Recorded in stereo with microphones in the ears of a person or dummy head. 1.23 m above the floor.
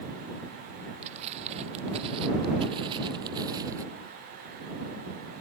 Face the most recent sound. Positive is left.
turn(degrees=-20)  # may be behind; listen again after turning